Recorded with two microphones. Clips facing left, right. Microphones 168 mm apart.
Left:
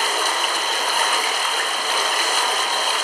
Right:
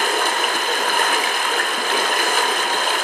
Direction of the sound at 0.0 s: 60° right (ahead or behind).